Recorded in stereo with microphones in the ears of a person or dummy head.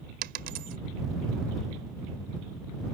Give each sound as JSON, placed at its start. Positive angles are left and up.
{"t": 0.2, "sound": "a dropped coin", "side_deg": -60}